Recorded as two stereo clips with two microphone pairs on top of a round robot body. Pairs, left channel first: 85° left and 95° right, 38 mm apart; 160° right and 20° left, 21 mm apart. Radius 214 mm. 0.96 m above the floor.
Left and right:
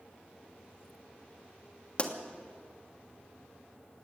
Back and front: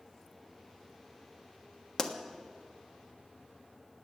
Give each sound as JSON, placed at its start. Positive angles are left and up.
{"t": 2.0, "sound": "a pop", "azimuth_deg": 140, "distance_m": 1.6}